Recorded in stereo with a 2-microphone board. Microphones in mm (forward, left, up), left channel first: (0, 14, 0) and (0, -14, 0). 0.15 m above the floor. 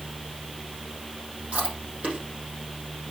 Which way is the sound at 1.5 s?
55° right (ahead or behind).